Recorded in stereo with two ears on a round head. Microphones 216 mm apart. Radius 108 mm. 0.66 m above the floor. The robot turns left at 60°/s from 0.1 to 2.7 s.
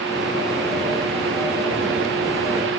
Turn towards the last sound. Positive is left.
No sound to turn to.